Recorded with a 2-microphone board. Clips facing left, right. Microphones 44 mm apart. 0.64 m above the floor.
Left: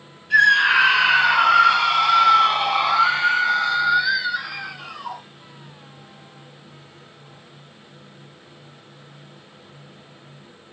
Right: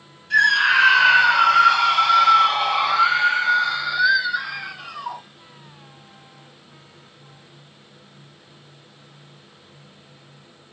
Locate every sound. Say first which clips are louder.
0.3 s a scream: left 1 dB; 10° left (ahead or behind), 1.3 m; by 5.2 s 5° right (ahead or behind), 2.5 m